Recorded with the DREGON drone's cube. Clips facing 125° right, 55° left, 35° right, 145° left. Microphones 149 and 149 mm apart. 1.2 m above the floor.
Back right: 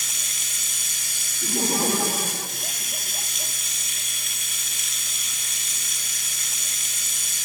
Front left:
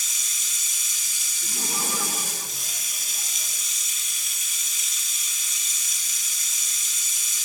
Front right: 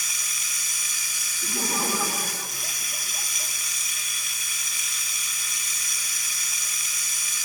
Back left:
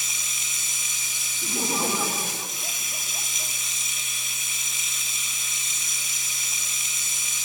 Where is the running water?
150° right, 1.2 m.